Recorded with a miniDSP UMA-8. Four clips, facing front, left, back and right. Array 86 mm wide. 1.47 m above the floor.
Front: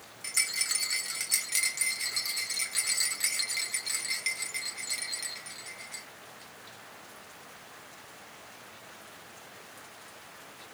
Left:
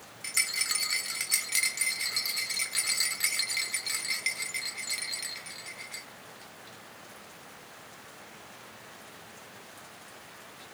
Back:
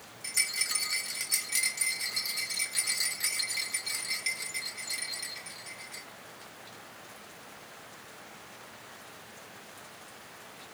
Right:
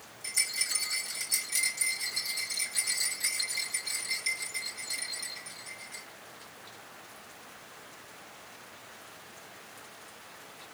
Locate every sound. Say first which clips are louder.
0.2 s a rattle: left 4 dB, even; 70° left, 1.9 m